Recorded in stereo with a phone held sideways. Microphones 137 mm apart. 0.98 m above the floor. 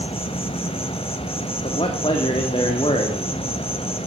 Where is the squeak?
I don't hear a squeak.